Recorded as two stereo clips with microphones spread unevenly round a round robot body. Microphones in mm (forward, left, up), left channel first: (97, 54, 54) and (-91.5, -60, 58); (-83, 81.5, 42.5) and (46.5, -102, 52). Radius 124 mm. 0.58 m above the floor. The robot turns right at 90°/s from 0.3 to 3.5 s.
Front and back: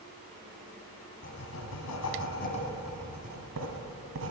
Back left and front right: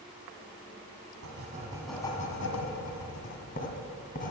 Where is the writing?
25° right, 1.8 m; by 4.3 s straight behind, 1.8 m.